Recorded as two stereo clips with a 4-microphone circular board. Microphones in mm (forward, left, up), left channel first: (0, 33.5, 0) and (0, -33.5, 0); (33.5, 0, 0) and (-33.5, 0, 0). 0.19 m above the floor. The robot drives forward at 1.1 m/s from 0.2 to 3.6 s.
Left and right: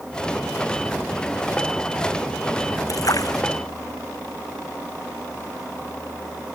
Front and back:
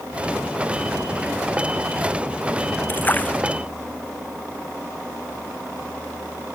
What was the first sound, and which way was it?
A splash, 60° left.